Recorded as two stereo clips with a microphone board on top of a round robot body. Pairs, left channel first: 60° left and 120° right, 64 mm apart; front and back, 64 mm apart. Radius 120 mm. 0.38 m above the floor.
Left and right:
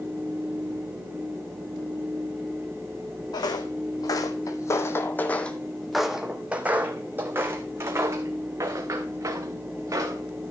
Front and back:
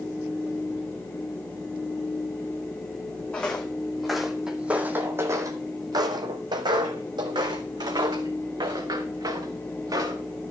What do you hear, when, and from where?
3.3 s footsteps: 75° left, 1.4 m; by 10.2 s 160° right, 3 m